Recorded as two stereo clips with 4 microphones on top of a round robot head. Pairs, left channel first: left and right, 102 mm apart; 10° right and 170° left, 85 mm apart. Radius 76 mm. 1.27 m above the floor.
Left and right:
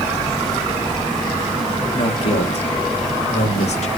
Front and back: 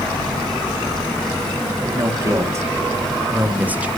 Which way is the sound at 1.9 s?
120° left.